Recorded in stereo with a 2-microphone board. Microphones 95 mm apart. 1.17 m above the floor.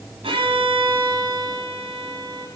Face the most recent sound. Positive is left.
turn(degrees=-65)  # may be behind; listen again after turning